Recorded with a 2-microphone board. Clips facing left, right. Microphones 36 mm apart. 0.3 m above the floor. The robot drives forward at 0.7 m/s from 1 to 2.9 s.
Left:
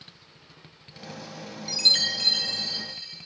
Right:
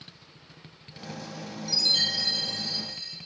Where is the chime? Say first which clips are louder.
Left 3 dB; 70° left (ahead or behind), 0.6 m; by 3.2 s 40° left (ahead or behind), 0.9 m.